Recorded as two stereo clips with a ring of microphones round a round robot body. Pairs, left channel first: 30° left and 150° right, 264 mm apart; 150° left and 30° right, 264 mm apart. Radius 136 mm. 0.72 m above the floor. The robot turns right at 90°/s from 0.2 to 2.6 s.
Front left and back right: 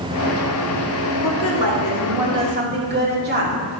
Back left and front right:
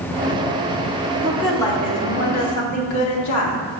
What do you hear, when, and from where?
1.2 s a woman speaking: 35° left, 1.7 m; by 3.6 s 160° left, 1.7 m